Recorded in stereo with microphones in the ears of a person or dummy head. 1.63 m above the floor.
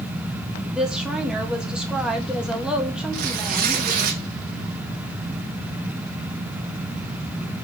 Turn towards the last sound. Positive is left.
turn(degrees=-50)  # may be behind; listen again after turning